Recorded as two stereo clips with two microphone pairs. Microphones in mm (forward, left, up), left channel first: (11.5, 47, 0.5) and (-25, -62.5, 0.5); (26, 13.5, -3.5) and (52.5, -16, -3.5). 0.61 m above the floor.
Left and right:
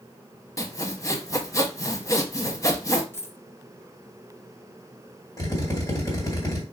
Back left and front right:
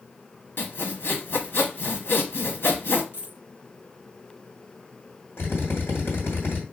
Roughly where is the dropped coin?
Behind left.